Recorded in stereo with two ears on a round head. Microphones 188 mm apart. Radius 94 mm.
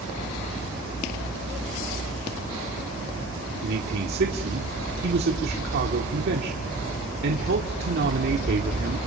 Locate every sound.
3.6 s a man speaking: 50° right (ahead or behind), 1.7 m